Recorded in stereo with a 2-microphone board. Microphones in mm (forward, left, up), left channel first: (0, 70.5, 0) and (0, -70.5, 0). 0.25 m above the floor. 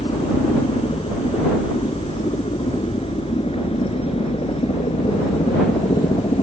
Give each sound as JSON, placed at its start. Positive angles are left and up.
{"t": 0.0, "sound": "a helicopter", "side_deg": 40}